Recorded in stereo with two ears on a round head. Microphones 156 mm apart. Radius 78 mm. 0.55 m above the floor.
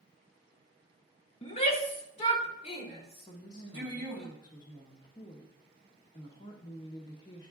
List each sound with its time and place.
1.4 s a shout: 35° left (ahead or behind), 0.9 m
3.3 s a woman speaking: 25° left (ahead or behind), 0.7 m